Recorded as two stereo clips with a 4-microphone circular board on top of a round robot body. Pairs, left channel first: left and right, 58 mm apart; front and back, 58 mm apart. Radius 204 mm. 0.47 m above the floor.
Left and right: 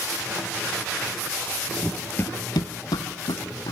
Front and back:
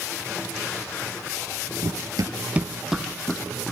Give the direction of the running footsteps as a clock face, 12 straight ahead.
5 o'clock.